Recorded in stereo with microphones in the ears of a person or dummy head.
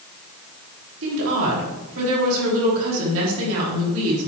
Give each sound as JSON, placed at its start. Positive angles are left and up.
{"t": 1.0, "sound": "a woman speaking", "side_deg": -75, "distance_m": 3.0}